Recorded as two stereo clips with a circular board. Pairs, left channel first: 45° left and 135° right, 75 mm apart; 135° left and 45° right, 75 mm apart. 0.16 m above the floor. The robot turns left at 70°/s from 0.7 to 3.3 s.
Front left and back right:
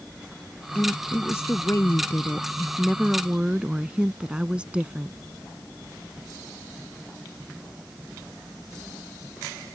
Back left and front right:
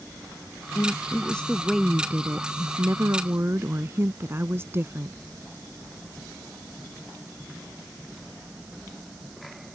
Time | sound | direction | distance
0.8 | a woman speaking | 110° left | ?